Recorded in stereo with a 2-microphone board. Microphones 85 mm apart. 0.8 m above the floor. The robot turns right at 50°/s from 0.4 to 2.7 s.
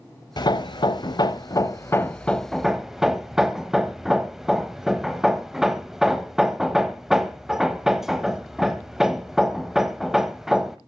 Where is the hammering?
55° left (ahead or behind), 1.0 m; by 10.8 s 5° right (ahead or behind), 1.0 m.